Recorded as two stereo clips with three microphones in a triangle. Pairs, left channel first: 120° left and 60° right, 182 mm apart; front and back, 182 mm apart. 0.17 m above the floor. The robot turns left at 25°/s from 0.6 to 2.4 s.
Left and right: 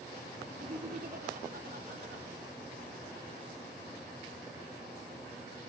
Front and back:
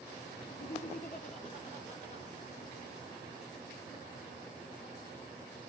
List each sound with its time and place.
0.5 s laughter: 10° right, 2.5 m; by 2.3 s 55° right, 2.5 m